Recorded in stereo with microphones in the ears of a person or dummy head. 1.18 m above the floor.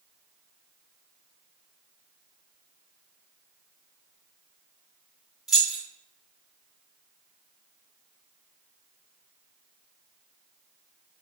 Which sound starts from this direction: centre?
Keys jangling, at 5.5 s.